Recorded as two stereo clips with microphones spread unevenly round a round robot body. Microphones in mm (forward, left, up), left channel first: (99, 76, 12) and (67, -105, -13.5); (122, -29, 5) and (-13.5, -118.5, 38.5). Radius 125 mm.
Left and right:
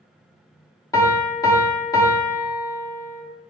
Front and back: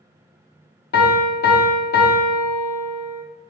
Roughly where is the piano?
Ahead.